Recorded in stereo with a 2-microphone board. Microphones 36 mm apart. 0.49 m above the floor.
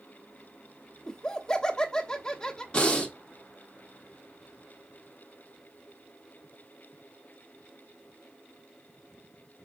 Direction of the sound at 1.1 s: 20° left (ahead or behind).